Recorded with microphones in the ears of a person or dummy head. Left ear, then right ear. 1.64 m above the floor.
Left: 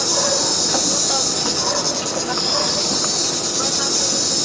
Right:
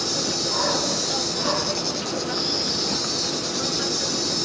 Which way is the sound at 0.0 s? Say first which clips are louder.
Left 6 dB; 35° left (ahead or behind).